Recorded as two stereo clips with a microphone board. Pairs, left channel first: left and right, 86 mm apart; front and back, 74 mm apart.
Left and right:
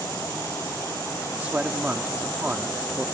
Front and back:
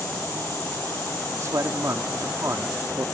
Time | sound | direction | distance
1.4 | a man speaking | 155° right | ?